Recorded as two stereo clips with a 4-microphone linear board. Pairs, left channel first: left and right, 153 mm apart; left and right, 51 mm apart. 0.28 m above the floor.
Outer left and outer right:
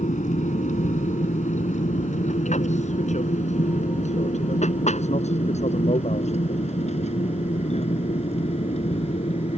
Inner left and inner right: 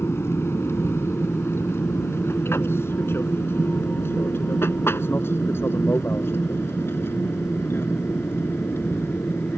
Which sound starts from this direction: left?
An aircraft, at 0.0 s.